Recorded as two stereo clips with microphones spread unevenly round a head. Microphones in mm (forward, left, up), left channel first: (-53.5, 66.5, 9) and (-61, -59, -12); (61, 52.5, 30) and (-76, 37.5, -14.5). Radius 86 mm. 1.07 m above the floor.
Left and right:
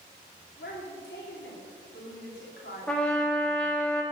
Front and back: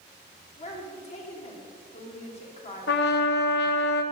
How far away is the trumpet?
About 1.0 m.